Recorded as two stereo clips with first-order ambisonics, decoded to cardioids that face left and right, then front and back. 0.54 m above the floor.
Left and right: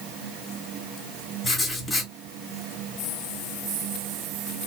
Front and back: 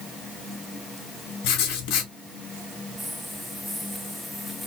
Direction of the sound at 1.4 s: 15° left.